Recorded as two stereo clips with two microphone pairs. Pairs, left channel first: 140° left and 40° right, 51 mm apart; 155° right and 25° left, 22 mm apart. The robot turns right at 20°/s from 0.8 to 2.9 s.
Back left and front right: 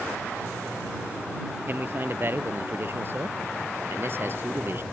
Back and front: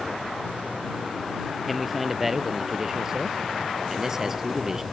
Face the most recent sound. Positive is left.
turn(degrees=-40)